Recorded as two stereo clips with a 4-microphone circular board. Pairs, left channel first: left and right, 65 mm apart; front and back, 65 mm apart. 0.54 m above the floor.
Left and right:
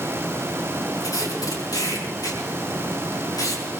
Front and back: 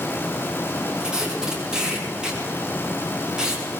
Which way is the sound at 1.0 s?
100° left.